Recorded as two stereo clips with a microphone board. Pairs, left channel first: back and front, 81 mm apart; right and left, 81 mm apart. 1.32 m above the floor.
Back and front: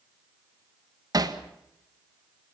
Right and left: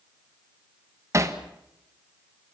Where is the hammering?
40° left, 1.5 m.